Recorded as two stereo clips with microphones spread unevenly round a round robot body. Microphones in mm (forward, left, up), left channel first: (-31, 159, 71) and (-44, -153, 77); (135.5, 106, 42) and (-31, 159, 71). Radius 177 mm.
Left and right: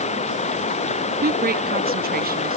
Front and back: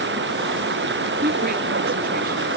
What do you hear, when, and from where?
0.0 s running water: 155° left
1.2 s a woman speaking: 155° right